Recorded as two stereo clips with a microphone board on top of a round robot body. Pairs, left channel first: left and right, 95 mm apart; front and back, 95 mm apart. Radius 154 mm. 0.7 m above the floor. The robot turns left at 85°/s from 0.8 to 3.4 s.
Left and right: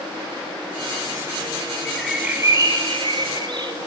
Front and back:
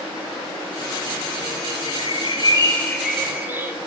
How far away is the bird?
About 0.8 m.